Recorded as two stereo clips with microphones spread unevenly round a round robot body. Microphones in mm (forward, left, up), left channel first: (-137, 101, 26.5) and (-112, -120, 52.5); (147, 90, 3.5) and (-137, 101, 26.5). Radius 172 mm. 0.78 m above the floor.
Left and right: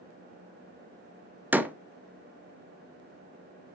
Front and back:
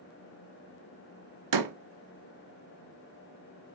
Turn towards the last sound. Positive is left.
turn(degrees=-170)